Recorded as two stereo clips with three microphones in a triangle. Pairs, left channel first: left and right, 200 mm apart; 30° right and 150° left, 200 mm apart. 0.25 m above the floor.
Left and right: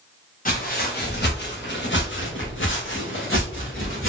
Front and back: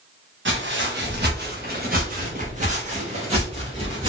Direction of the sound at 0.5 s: 135° left.